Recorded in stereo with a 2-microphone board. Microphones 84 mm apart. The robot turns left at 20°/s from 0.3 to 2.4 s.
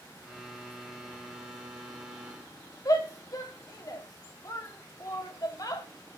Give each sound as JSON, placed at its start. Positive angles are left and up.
{"t": 2.9, "sound": "a shout", "side_deg": 45, "distance_m": 1.3}